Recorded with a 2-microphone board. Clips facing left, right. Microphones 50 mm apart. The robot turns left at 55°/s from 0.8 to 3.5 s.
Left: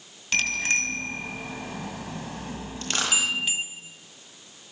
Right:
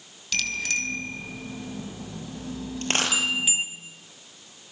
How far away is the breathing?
I don't hear breathing.